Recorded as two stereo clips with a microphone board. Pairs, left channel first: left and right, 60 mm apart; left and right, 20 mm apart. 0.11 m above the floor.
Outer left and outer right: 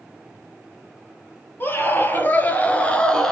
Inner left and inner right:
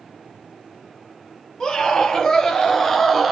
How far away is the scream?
About 3.5 m.